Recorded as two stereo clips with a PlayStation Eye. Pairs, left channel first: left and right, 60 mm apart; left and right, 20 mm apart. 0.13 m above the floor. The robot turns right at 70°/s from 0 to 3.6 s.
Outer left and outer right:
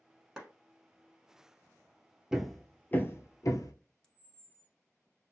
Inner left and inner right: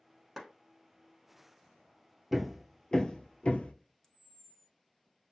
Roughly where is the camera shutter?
Centre.